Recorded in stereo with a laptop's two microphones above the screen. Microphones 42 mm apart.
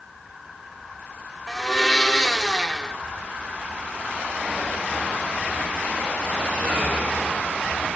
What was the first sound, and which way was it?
A blender, 15° left (ahead or behind).